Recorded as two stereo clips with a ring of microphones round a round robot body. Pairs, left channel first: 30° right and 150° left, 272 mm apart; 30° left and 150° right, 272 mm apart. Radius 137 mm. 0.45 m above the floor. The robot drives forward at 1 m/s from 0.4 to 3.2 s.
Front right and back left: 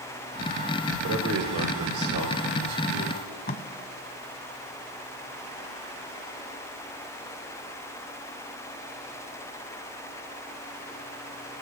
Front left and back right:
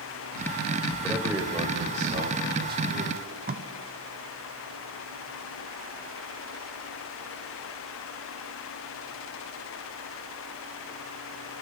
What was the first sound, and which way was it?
A man speaking, 120° left.